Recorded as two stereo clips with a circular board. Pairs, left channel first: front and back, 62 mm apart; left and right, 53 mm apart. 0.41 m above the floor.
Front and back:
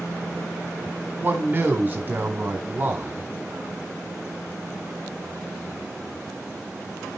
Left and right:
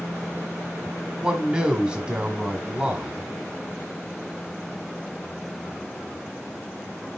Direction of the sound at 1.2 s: 150° right.